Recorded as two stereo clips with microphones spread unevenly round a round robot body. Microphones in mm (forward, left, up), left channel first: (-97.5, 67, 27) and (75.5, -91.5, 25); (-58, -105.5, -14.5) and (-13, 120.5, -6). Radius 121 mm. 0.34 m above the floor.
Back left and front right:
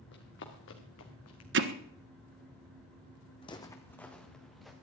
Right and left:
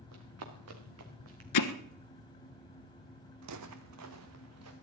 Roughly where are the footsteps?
Ahead left.